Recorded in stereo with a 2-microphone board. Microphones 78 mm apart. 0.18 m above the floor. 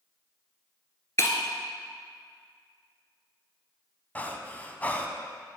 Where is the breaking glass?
35° left (ahead or behind), 1.0 m.